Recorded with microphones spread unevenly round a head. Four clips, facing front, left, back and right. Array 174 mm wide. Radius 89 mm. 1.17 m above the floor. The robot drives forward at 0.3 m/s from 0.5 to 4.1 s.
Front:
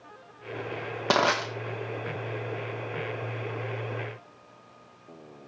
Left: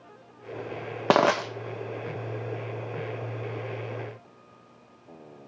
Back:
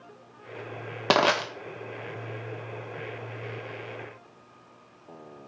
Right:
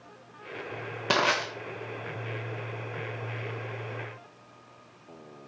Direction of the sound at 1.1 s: 95° left.